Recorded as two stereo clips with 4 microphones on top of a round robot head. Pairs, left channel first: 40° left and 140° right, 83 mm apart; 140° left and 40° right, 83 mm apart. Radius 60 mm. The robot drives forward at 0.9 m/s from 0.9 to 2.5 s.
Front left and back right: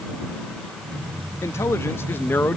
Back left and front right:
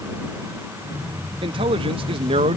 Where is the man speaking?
20° right; by 2.6 s 30° right.